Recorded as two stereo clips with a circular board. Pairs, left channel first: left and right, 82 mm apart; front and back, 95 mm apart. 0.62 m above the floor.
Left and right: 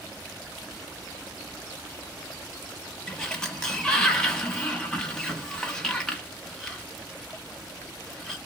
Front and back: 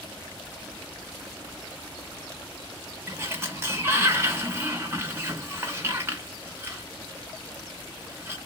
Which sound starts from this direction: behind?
A sliding door, at 3.1 s.